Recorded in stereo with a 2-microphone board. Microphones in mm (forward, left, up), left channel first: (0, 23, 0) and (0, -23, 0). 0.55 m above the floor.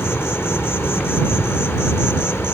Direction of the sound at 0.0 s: 60° left (ahead or behind).